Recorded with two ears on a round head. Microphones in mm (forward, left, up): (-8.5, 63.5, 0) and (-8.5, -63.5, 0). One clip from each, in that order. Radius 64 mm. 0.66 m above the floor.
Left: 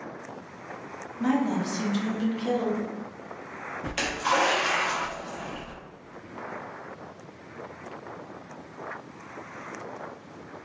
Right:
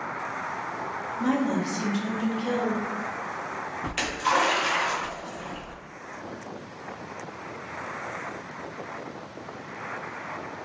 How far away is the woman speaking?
About 0.6 m.